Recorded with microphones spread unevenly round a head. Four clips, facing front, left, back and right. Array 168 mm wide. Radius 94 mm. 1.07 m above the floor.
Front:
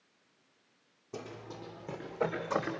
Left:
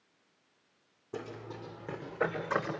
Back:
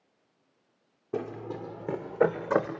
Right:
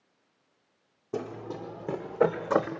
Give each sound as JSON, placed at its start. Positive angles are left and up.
{"t": 1.1, "sound": "running footsteps", "azimuth_deg": -145, "distance_m": 3.5}